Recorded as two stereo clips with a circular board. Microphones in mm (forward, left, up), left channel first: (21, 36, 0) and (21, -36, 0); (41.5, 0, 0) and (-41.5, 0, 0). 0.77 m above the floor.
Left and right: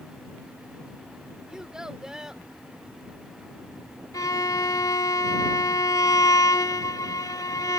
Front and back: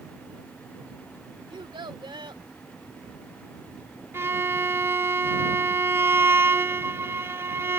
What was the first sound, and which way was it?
A child speaking, 170° right.